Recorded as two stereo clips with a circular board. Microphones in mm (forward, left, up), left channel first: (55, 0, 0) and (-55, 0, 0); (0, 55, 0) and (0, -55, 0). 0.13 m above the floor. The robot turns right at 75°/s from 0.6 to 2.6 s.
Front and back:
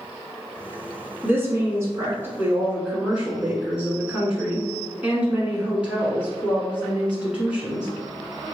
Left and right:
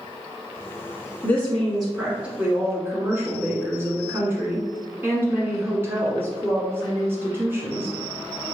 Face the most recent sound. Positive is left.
turn(degrees=-115)